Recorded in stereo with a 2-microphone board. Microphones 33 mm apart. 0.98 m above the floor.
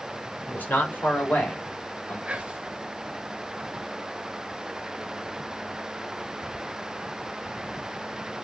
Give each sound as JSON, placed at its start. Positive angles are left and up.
{"t": 0.5, "sound": "a man speaking", "side_deg": 80, "distance_m": 3.0}
{"t": 2.2, "sound": "whispering", "side_deg": -35, "distance_m": 1.4}